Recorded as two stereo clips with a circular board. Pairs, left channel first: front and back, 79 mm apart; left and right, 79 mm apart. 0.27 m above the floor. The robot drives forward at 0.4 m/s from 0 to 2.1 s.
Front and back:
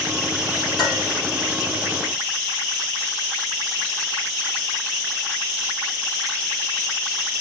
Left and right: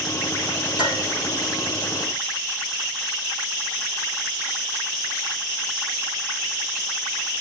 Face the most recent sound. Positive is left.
turn(degrees=95)